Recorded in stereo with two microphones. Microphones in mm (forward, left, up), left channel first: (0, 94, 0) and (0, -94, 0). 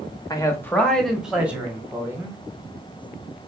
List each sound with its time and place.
0.3 s a man speaking: 20° left (ahead or behind), 0.8 m; by 2.4 s 15° right (ahead or behind), 1.8 m